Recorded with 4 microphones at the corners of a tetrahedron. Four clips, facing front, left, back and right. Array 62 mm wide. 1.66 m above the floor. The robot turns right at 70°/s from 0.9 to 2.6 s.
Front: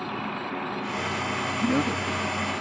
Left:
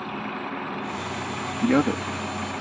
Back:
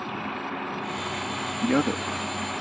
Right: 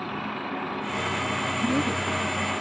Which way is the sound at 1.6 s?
105° left.